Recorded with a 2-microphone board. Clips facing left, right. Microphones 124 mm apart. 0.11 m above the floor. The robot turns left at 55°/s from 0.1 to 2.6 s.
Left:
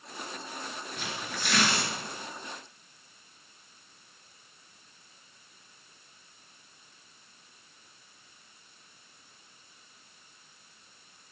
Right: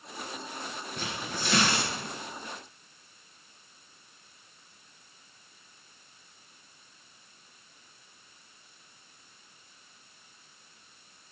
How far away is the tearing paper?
About 1.5 m.